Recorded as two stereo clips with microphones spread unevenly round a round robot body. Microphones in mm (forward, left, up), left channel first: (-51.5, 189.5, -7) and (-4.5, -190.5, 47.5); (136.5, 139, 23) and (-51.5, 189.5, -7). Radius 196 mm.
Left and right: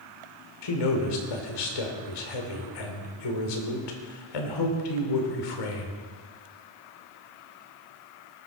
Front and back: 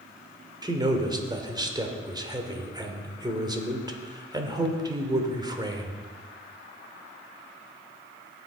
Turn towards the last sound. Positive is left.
turn(degrees=100)